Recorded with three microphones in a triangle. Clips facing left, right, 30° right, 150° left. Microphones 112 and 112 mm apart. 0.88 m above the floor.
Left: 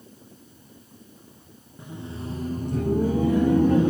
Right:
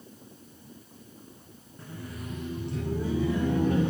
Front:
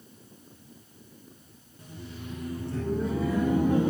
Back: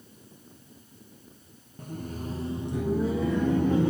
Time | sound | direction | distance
1.8 | laughter | 160° left | 0.8 m